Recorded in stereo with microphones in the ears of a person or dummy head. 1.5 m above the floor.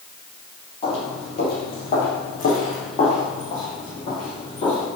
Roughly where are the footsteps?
Left.